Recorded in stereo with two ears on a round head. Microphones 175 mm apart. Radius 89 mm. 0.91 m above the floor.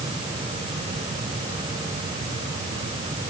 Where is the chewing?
No chewing in this recording.